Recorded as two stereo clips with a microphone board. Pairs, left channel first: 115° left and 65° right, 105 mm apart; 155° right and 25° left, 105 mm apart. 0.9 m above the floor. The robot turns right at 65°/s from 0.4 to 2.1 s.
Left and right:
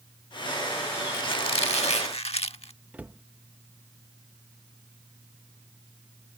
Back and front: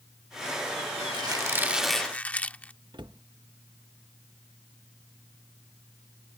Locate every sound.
1.1 s a squeak: 65° left; by 2.7 s 125° left
2.9 s a cupboard door: 5° left